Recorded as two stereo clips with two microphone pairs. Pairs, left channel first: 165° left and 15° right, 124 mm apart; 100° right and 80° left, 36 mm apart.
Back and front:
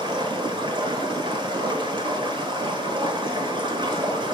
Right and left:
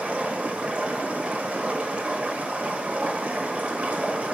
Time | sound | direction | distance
0.0 | running water | 30° left | 1.1 m